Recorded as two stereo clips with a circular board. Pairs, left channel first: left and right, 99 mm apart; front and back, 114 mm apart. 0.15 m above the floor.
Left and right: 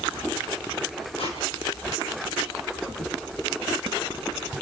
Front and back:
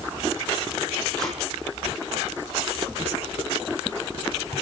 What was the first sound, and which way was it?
Tape being pulled, 85° left.